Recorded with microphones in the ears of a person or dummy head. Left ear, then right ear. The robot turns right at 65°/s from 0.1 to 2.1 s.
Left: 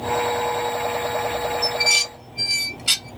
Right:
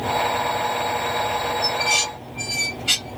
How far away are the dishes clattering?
About 1.0 m.